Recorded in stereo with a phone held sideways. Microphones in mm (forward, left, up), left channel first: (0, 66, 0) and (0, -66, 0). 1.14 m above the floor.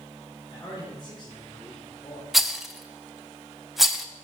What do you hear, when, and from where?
0.5 s a man speaking: 45° left (ahead or behind), 4 m
2.3 s a rattle: centre (ahead or behind), 0.7 m